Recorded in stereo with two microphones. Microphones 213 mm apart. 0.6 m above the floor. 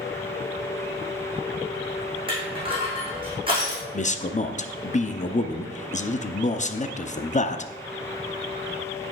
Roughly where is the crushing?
Right.